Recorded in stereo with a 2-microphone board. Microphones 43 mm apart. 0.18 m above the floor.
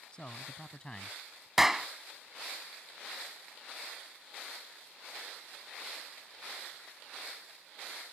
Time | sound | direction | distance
0.1 | a man speaking | 20° left (ahead or behind) | ?
1.6 | a clap | 5° right (ahead or behind) | ?